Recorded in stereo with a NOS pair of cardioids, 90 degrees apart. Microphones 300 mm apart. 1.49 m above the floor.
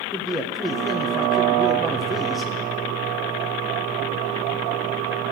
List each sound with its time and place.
0.1 s a man speaking: straight ahead, 1.5 m